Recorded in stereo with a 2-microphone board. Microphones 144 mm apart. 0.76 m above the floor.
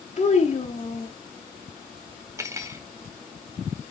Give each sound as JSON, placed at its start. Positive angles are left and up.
{"t": 0.2, "sound": "a child speaking", "side_deg": 50, "distance_m": 1.7}
{"t": 2.4, "sound": "cutlery clinking", "side_deg": -20, "distance_m": 1.1}